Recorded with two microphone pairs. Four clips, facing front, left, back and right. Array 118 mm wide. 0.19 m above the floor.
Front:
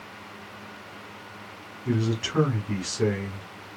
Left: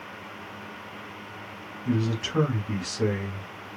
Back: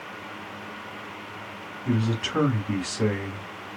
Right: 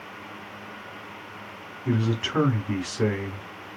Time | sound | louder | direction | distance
1.9 | a man speaking | right 1 dB, even | 120° right | 1.0 m